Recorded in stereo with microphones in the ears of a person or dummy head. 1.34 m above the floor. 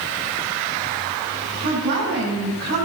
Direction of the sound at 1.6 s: 70° right (ahead or behind).